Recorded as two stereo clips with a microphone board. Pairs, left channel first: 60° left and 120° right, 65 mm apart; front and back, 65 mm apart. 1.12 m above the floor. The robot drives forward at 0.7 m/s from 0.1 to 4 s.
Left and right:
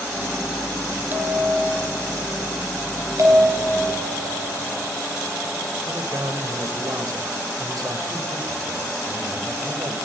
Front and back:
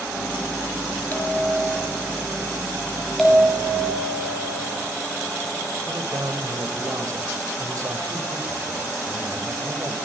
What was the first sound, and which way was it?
A bell, 60° right.